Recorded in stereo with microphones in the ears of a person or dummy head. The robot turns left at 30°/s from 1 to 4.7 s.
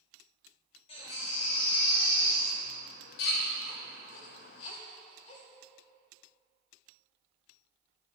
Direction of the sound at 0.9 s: 35° left (ahead or behind).